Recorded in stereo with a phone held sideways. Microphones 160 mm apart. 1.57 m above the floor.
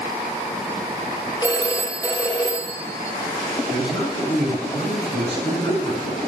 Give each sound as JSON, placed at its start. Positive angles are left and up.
{"t": 1.4, "sound": "a phone ringing", "side_deg": 25, "distance_m": 4.0}
{"t": 3.7, "sound": "a man speaking", "side_deg": 30, "distance_m": 6.5}